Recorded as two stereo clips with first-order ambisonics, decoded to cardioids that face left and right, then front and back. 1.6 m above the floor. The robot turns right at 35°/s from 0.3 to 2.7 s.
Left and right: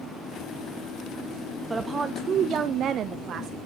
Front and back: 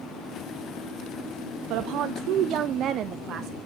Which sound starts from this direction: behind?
A woman speaking, at 1.7 s.